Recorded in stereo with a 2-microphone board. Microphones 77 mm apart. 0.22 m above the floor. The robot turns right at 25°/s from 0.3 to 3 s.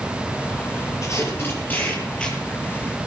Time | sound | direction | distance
1.0 | tape being pulled | 40° left (ahead or behind) | 4.5 m